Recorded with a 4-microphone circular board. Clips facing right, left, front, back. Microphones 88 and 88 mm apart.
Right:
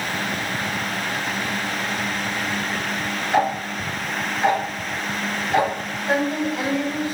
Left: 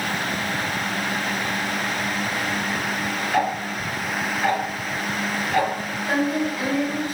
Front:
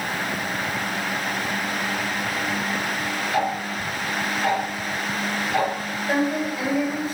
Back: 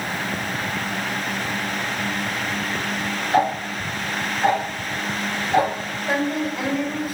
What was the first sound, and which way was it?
Ticking, 155° right.